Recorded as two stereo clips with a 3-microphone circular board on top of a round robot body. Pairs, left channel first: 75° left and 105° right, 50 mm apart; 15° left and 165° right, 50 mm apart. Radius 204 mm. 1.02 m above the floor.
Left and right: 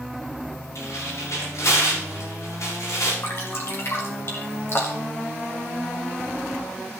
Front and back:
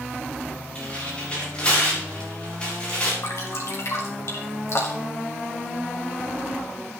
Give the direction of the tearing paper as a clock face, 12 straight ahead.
9 o'clock.